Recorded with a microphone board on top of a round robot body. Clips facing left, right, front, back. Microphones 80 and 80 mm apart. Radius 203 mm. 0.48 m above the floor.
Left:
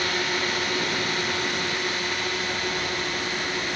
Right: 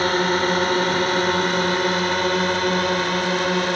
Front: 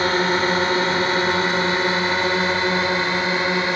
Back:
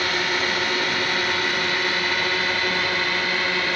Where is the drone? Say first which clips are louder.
Right 8 dB, front 5 dB; 50° right; by 3.8 s 65° right.